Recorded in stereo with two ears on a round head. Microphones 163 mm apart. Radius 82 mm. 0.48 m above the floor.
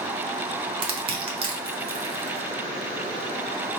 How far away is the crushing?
About 1.0 m.